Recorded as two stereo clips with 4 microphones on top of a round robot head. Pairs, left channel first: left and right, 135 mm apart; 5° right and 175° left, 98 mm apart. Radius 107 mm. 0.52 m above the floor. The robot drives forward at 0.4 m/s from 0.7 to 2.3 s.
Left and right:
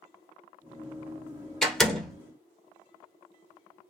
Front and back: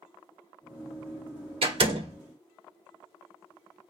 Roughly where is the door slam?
Behind.